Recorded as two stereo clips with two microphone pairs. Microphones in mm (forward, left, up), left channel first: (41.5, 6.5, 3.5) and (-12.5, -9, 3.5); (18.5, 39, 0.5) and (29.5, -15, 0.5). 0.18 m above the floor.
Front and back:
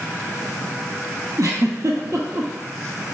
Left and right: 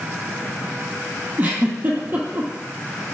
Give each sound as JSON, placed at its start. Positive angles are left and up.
{"t": 1.4, "sound": "a giggle", "azimuth_deg": -140, "distance_m": 0.8}